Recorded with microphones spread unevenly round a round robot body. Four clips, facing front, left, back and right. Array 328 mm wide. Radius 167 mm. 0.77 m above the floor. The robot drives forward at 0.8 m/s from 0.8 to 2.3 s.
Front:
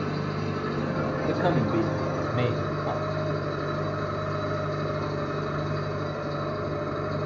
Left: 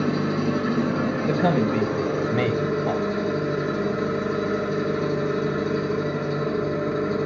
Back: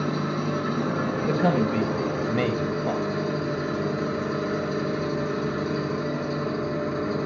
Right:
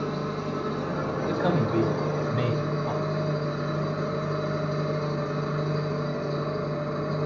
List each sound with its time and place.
0.0 s an engine running: 115° left, 6 m; by 7.3 s 125° left, 6.5 m
1.2 s a man speaking: 125° left, 4 m; by 3.0 s 135° left, 4.5 m